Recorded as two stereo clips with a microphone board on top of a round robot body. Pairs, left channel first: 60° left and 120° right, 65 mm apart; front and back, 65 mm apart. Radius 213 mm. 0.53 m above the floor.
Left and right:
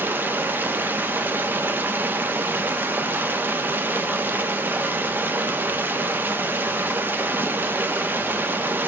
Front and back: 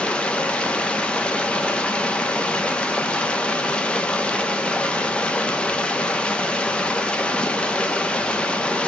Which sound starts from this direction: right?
Running water, at 0.0 s.